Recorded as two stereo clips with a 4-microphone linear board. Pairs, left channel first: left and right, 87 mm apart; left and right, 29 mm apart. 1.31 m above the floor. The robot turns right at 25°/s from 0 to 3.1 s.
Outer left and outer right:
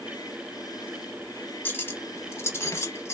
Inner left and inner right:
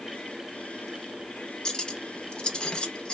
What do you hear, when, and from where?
1.6 s cutlery clinking: 25° left (ahead or behind), 0.6 m; by 3.2 s 30° left (ahead or behind), 0.6 m